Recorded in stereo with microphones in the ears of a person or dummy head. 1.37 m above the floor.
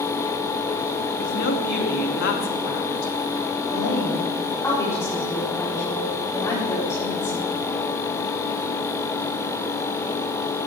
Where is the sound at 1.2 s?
60° left (ahead or behind), 2 m.